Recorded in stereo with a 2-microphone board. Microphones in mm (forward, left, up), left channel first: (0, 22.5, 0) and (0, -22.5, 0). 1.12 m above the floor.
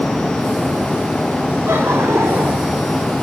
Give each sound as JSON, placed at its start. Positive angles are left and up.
{"t": 1.7, "sound": "laughter", "side_deg": -85, "distance_m": 3.5}